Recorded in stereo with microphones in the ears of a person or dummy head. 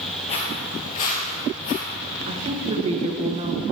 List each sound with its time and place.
0.3 s footsteps: 30° left (ahead or behind), 1.9 m; by 1.8 s 45° left (ahead or behind), 3 m
2.3 s a woman speaking: 35° right (ahead or behind), 1.1 m